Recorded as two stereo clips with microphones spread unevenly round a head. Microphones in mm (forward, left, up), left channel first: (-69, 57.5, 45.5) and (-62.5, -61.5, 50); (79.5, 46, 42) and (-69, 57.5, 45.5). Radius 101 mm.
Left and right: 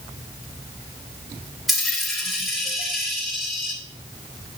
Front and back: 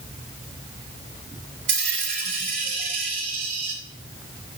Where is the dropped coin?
175° right, 3.5 m.